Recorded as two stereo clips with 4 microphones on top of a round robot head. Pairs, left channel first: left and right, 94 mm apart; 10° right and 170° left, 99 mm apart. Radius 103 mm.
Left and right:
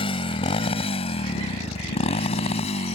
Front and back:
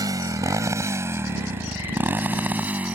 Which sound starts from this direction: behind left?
A motorcycle, at 0.0 s.